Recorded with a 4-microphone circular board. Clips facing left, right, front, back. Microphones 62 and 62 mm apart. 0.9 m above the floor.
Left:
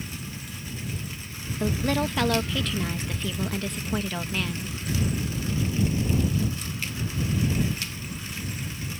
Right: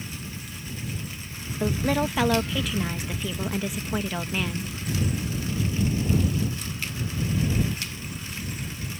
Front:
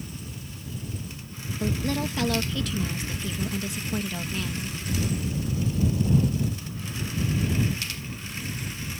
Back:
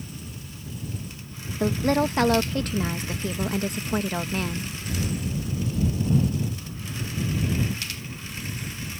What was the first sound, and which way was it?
A woman speaking, 170° right.